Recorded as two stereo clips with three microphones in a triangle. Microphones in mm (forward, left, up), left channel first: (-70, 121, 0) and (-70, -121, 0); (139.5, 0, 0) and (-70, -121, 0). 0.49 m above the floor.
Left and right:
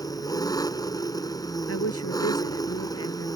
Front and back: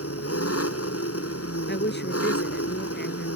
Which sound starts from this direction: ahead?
An engine running, at 0.0 s.